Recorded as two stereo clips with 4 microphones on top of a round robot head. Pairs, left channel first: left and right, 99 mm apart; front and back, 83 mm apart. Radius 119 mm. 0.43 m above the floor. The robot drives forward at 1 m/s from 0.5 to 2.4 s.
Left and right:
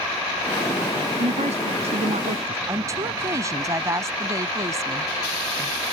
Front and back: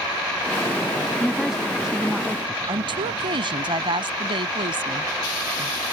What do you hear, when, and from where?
1.2 s a woman speaking: 90° right; by 2.6 s 105° right
2.7 s a woman speaking: 150° right